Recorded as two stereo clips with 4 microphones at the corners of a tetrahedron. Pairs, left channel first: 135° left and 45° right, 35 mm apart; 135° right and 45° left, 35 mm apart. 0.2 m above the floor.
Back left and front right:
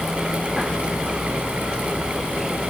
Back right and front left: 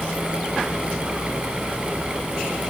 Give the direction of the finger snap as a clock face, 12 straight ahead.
No finger snap in this recording.